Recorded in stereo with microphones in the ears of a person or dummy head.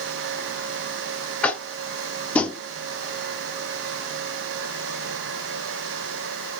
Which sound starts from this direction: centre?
Tapping, at 1.4 s.